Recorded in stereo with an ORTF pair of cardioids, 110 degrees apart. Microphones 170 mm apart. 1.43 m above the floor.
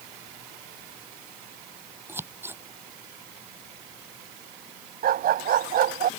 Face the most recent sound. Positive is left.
turn(degrees=-60)